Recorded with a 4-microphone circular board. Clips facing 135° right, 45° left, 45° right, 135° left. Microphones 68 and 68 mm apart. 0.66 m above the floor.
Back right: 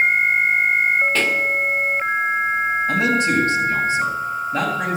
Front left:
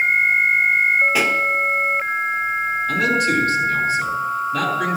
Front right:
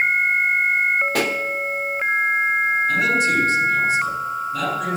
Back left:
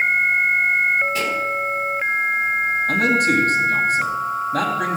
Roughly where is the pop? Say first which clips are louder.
Front left 1 dB, front right 1 dB; ahead right.